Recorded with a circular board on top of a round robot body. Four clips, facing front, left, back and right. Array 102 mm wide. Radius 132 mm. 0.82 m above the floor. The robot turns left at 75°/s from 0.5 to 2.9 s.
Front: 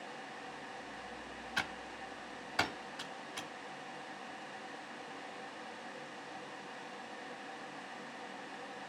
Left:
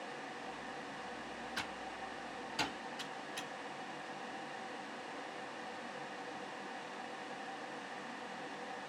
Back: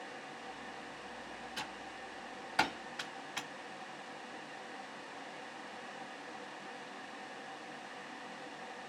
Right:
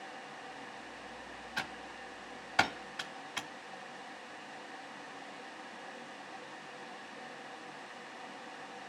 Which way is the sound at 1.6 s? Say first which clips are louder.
Right 5 dB, front 8 dB; 25° right.